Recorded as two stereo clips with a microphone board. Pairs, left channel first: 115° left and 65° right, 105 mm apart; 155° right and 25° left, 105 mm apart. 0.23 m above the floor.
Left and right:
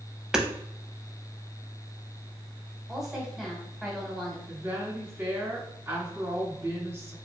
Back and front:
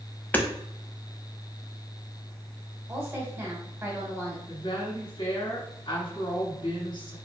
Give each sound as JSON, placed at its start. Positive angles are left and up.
{"t": 0.3, "sound": "hammering", "azimuth_deg": -135, "distance_m": 0.8}
{"t": 2.9, "sound": "a woman speaking", "azimuth_deg": 15, "distance_m": 1.6}
{"t": 4.5, "sound": "a woman speaking", "azimuth_deg": -140, "distance_m": 1.6}